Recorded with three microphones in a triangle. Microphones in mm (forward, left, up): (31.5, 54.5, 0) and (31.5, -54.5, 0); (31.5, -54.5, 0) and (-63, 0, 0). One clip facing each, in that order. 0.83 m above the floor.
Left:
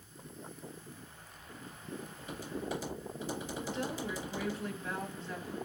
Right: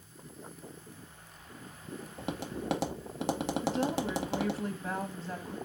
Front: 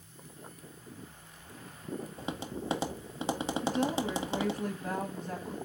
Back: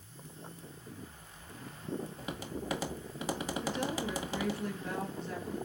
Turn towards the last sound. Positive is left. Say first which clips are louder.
# right 7 dB, front 6 dB
turn(degrees=-50)